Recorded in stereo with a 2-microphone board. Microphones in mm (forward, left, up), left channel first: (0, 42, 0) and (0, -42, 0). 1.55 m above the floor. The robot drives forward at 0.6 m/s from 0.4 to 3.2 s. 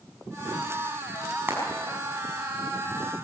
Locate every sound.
1.5 s frying: 25° right (ahead or behind), 5 m